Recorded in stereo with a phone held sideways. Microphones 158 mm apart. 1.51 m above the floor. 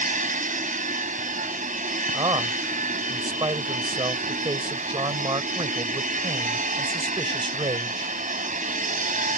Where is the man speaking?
30° right (ahead or behind).